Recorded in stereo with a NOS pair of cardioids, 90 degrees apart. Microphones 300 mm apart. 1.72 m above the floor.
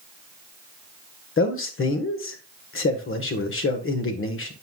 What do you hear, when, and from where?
1.4 s a man speaking: 45° left, 1.6 m